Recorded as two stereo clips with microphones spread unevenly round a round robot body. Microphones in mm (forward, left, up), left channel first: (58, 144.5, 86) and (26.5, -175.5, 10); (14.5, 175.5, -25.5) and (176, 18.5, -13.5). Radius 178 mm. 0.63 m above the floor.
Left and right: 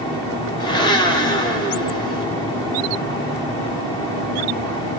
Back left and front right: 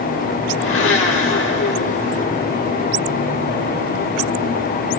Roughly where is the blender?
Behind.